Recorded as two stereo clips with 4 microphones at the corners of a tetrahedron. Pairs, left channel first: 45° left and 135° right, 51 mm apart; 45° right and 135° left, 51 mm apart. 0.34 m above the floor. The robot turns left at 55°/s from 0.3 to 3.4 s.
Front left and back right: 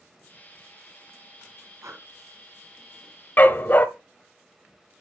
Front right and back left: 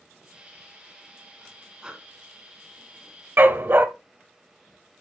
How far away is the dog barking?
About 0.7 m.